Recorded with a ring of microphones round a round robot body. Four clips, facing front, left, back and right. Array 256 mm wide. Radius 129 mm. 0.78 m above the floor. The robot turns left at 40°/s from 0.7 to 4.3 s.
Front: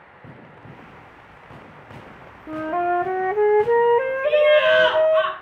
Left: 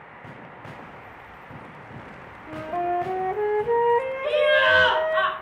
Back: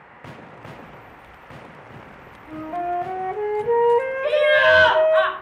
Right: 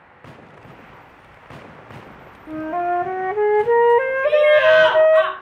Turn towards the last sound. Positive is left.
turn(degrees=-175)